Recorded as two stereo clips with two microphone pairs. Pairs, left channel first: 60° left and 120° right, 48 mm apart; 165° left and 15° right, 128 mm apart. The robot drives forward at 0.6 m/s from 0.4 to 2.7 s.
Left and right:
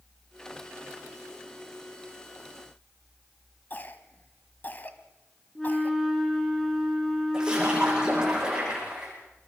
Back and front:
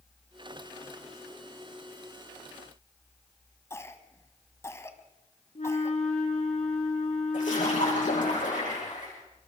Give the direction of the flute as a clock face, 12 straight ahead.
7 o'clock.